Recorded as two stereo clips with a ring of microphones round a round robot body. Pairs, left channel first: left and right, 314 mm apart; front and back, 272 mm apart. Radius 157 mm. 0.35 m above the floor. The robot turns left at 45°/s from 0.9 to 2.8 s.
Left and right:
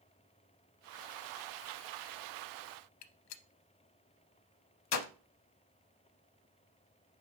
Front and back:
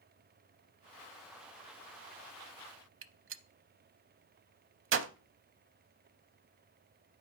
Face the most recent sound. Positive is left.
turn(degrees=130)